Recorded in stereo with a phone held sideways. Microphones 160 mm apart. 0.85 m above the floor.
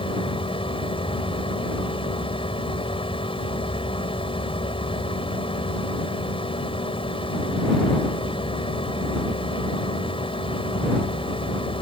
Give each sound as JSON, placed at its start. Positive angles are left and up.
{"t": 0.0, "sound": "a machine running", "side_deg": 35}